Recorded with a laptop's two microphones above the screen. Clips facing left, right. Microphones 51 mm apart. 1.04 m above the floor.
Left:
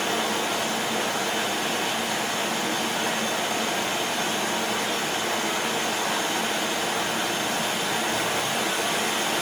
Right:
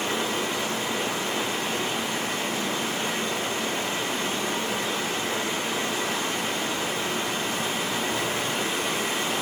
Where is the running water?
75° left (ahead or behind), 4 m.